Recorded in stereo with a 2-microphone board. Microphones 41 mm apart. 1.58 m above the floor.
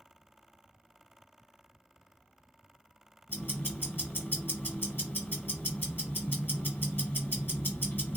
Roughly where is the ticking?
Left.